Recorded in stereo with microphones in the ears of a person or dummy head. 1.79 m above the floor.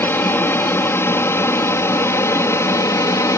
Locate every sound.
0.0 s an aircraft: 10° left (ahead or behind); by 3.4 s 15° left (ahead or behind)